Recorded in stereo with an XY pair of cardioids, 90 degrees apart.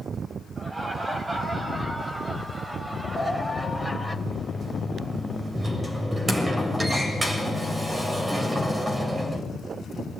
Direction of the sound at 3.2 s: 20° right.